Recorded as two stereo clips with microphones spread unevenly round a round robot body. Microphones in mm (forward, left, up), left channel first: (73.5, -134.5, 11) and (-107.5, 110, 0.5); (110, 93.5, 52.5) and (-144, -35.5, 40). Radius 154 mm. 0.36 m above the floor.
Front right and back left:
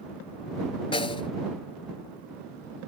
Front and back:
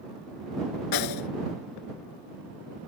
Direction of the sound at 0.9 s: 20° left.